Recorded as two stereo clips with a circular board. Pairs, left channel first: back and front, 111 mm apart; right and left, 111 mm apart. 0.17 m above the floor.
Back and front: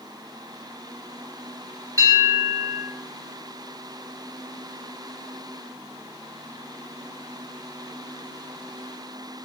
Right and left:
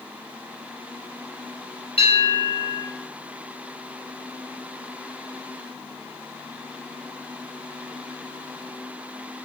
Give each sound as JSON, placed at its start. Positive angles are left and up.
{"t": 2.0, "sound": "a bell", "azimuth_deg": -60, "distance_m": 6.0}